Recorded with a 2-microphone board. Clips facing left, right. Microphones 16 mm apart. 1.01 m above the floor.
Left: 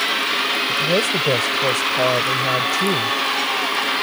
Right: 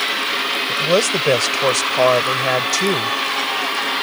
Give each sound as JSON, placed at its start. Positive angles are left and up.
{"t": 0.7, "sound": "a man speaking", "side_deg": -50}